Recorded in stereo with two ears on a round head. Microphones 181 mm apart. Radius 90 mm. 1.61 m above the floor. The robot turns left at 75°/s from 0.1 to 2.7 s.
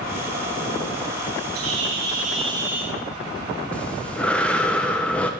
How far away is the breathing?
About 0.8 m.